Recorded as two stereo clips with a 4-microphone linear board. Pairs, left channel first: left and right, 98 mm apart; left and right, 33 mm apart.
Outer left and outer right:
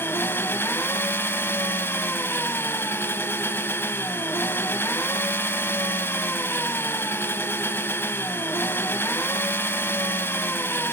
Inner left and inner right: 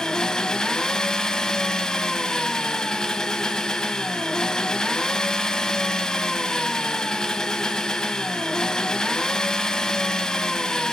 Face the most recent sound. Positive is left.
turn(degrees=25)  # may be behind; listen again after turning